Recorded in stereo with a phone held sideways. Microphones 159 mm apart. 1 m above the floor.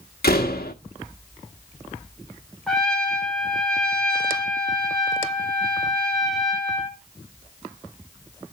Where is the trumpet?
5° left (ahead or behind), 2.5 m.